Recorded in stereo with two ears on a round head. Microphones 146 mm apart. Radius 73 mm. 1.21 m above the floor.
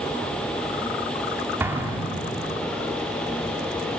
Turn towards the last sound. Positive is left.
turn(degrees=-15)  # may be behind; listen again after turning